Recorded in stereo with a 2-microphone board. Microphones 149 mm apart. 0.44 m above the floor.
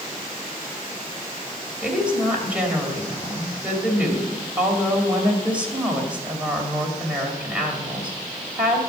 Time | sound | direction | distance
1.8 | a woman speaking | 10° right (ahead or behind) | 2.5 m